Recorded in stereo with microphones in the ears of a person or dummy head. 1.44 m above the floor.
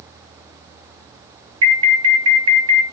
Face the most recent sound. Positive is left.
turn(degrees=-75)  # may be behind; listen again after turning